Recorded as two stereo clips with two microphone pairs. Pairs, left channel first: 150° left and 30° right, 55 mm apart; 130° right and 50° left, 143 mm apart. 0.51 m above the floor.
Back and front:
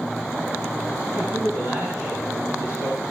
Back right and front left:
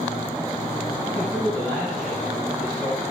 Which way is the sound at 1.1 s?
55° right.